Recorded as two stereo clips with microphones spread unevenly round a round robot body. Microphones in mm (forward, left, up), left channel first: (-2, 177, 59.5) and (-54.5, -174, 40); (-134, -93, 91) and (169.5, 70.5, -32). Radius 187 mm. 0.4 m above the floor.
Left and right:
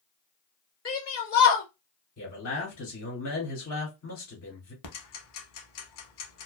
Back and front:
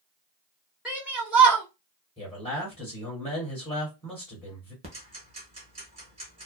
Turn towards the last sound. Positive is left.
turn(degrees=105)